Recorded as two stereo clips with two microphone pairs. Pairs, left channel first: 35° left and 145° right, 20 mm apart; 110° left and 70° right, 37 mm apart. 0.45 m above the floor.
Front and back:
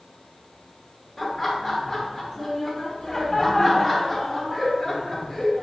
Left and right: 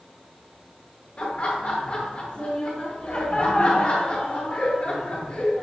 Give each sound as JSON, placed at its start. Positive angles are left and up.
{"t": 1.2, "sound": "laughter", "azimuth_deg": 110, "distance_m": 1.0}